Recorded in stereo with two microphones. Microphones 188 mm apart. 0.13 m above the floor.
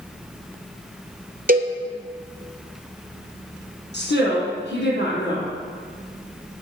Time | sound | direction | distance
1.5 | a cowbell | 55° right (ahead or behind) | 0.6 m
3.9 | a woman speaking | 70° left (ahead or behind) | 3 m